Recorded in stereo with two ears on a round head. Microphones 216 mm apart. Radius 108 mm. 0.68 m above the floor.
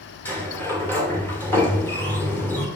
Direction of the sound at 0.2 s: 10° left (ahead or behind).